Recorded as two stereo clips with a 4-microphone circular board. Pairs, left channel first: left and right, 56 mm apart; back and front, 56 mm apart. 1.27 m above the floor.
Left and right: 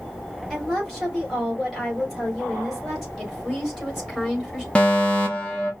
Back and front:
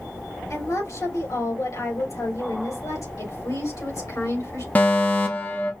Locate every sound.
0.5 s a woman speaking: 175° left, 3.5 m
3.2 s a woman speaking: straight behind, 3 m
4.8 s a fire alarm: 145° left, 1.0 m